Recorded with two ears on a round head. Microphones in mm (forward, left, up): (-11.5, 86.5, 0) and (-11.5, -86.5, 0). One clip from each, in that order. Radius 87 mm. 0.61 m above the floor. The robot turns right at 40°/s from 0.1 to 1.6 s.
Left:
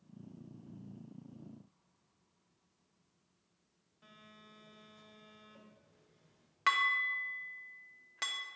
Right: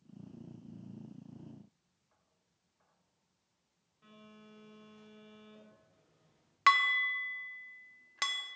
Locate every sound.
4.0 s a phone buzzing: 15° left (ahead or behind), 2 m
6.7 s dishes clattering: 30° right (ahead or behind), 0.6 m